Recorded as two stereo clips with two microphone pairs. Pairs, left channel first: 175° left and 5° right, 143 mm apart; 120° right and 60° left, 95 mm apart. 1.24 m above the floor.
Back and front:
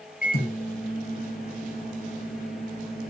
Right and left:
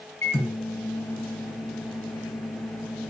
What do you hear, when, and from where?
0.2 s a microwave: 175° left, 0.8 m